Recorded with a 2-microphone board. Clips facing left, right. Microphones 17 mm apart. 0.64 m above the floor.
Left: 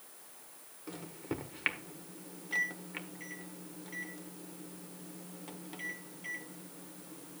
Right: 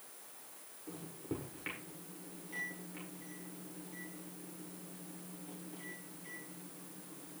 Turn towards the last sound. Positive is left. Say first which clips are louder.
# left 3 dB
turn(degrees=65)  # may be behind; listen again after turning